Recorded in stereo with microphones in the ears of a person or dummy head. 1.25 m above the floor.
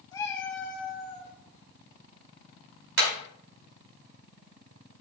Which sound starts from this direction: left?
A cat meowing, at 0.1 s.